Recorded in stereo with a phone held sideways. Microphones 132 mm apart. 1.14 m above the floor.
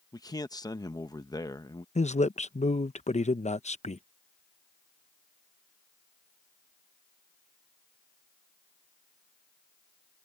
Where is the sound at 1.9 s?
60° left (ahead or behind).